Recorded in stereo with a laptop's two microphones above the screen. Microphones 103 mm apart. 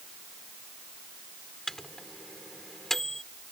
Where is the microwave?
5° left (ahead or behind).